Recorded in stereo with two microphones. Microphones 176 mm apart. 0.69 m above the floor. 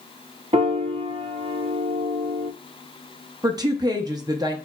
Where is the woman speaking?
20° right (ahead or behind), 0.6 m.